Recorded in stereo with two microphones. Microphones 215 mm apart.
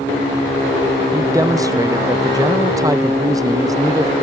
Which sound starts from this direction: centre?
A man speaking, at 1.1 s.